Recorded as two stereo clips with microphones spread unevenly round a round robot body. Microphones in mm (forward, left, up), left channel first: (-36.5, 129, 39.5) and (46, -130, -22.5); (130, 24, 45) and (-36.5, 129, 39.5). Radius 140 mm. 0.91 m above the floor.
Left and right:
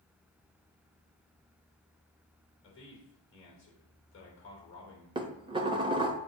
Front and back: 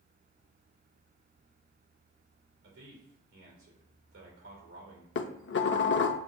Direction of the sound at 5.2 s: Straight ahead.